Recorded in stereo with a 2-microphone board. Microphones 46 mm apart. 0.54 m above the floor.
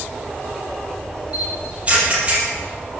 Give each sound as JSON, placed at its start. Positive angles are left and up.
{"t": 1.3, "sound": "a camera shutter", "side_deg": -30, "distance_m": 6.0}